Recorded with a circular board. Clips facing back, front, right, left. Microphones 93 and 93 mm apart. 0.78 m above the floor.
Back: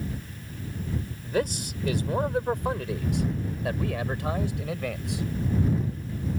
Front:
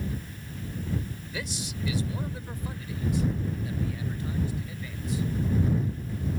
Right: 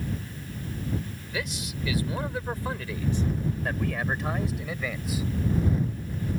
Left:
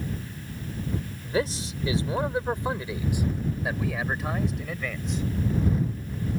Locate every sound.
1.2 s a man speaking: 140° left; by 5.2 s 170° right